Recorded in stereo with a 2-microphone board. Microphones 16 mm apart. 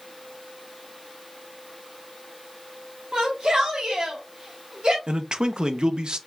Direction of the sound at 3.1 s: 65° right (ahead or behind).